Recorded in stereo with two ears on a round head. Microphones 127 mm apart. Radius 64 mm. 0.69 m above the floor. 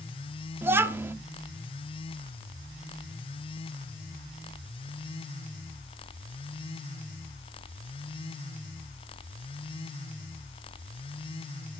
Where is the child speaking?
15° right (ahead or behind), 0.8 m.